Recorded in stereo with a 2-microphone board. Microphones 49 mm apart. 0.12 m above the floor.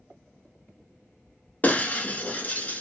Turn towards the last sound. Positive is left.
turn(degrees=30)  # may be behind; listen again after turning